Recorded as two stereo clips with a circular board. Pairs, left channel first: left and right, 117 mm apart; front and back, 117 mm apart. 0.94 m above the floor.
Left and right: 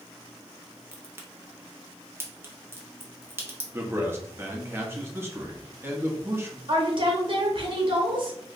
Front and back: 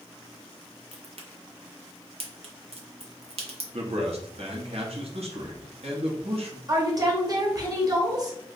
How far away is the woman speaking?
About 1.0 m.